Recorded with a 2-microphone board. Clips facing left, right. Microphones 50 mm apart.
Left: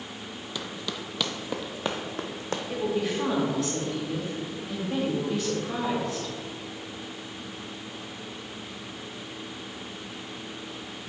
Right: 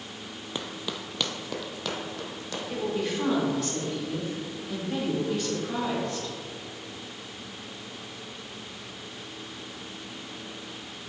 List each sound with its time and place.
0.6 s running footsteps: 30° right (ahead or behind), 0.6 m; by 2.6 s 45° left (ahead or behind), 1.1 m
2.7 s a woman speaking: 5° left (ahead or behind), 1.6 m